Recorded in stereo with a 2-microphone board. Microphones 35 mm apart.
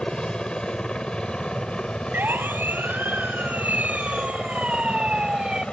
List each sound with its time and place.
0.0 s a helicopter: 25° left (ahead or behind); by 5.7 s 30° left (ahead or behind)
2.1 s a siren: 75° right (ahead or behind); by 5.6 s 25° right (ahead or behind)